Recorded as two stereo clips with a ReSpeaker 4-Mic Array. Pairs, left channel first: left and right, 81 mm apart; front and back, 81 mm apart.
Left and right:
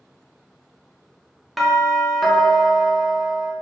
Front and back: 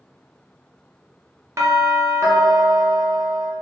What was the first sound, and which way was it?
A doorbell, straight behind.